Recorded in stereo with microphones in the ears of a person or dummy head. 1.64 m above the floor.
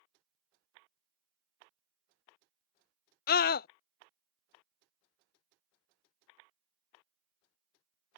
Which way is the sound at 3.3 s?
50° left (ahead or behind).